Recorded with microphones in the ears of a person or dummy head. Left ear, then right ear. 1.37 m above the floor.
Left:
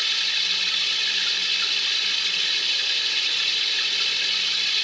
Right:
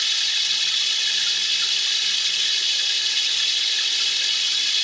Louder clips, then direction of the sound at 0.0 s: Right 1 dB; 25° right (ahead or behind).